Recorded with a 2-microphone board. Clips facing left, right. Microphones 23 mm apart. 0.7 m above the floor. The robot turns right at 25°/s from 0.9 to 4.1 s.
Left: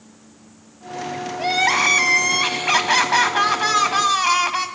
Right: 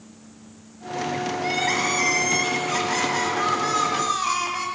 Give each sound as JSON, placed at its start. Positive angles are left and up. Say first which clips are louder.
{"t": 1.4, "sound": "crying", "louder": "left 7 dB", "azimuth_deg": 65, "distance_m": 1.2}